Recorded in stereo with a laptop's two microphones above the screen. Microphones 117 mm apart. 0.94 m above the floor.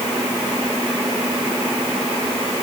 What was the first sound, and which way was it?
Only background noise.